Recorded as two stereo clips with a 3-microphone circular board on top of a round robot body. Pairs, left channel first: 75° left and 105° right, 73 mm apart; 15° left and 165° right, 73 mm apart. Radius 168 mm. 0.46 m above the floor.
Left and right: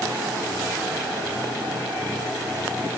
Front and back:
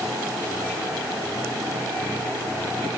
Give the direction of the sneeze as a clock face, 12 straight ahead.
I don't hear a sneeze.